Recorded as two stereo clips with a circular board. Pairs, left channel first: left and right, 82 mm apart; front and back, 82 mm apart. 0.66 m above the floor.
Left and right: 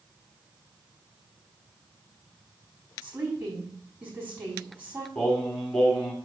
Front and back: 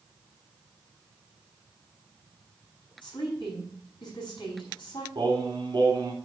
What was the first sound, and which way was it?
A woman speaking, 25° right.